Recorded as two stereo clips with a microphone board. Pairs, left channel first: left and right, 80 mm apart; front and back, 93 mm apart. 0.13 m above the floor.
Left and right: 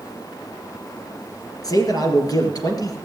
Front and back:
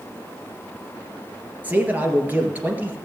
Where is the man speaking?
110° left, 2 m.